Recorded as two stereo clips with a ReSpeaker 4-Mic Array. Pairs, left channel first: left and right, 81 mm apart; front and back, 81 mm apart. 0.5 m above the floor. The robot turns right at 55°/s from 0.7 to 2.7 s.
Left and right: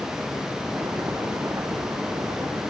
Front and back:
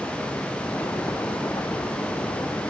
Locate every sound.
Only background noise.